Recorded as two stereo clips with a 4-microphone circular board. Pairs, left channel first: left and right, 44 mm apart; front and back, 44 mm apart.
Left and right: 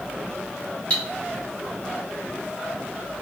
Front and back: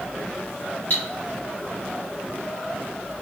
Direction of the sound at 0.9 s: 40° left.